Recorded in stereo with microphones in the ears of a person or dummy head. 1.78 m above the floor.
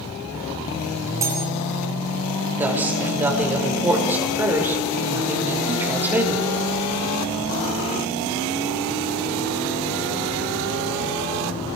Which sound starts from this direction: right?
Cutlery clinking, at 1.2 s.